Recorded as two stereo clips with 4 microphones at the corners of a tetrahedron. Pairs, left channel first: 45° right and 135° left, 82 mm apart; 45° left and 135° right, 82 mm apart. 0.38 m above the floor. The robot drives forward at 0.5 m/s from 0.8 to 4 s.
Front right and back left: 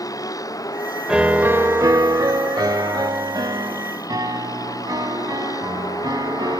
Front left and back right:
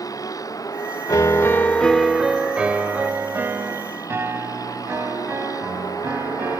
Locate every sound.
0.0 s a vehicle: straight ahead
1.1 s a piano: 55° left; by 6.6 s 165° left